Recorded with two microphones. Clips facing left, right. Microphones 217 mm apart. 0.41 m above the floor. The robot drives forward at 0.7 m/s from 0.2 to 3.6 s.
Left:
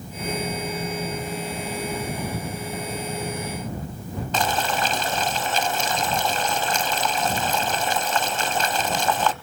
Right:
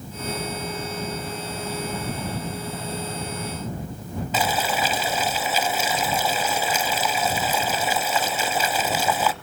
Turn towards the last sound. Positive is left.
turn(degrees=-10)  # may be behind; listen again after turning